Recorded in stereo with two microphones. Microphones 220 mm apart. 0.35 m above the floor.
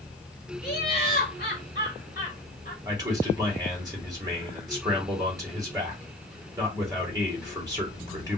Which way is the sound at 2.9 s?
15° right (ahead or behind).